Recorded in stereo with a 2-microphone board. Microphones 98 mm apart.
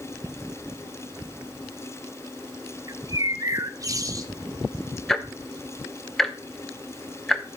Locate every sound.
2.9 s a bird: 35° right (ahead or behind), 0.6 m
5.1 s ticking: 5° left (ahead or behind), 0.7 m